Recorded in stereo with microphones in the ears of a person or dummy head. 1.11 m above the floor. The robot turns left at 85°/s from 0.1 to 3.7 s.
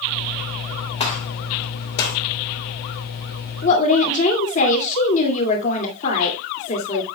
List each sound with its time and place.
1.0 s a gunshot: 35° left (ahead or behind), 3 m; by 2.2 s 45° left (ahead or behind), 3 m
3.6 s a woman speaking: 45° left (ahead or behind), 2 m; by 7.0 s 40° left (ahead or behind), 2 m